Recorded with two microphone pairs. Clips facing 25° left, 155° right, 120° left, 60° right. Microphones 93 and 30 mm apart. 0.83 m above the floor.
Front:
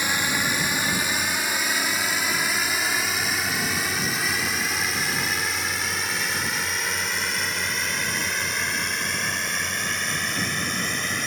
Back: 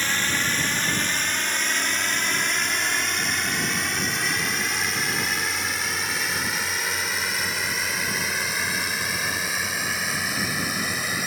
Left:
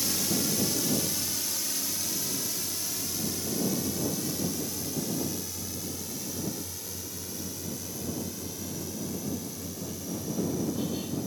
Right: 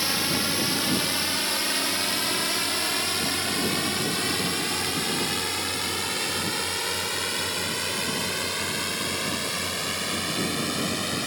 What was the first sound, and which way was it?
A drone, 50° right.